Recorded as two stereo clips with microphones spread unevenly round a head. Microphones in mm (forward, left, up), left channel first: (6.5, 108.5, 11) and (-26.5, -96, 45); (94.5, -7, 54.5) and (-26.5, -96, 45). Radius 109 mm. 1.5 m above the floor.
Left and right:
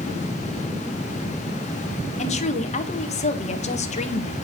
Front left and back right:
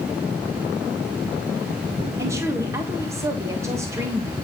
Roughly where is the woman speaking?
Behind left.